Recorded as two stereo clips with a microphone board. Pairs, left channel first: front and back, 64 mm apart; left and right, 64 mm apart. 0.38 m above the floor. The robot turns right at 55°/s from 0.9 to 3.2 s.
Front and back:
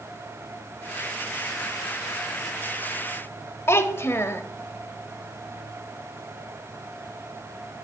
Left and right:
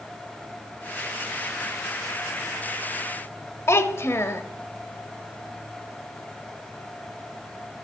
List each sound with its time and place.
3.7 s a child speaking: 45° left, 0.8 m